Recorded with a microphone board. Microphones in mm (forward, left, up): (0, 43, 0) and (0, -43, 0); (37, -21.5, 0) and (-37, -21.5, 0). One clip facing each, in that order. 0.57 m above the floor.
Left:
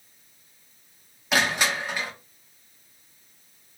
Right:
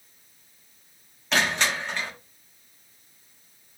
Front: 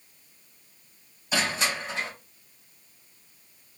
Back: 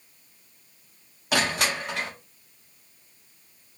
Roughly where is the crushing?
Behind.